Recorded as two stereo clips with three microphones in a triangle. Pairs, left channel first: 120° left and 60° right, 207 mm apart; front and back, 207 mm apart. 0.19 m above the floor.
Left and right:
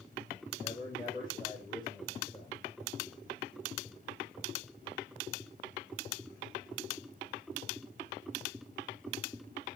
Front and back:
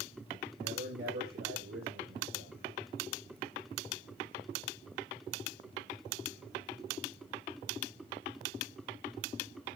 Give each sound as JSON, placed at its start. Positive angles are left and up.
{"t": 0.6, "sound": "a man speaking", "azimuth_deg": -170, "distance_m": 4.0}